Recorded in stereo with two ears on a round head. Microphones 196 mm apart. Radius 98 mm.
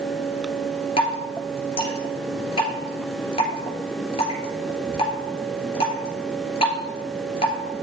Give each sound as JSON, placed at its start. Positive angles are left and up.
{"t": 1.0, "sound": "dripping", "side_deg": 30, "distance_m": 2.5}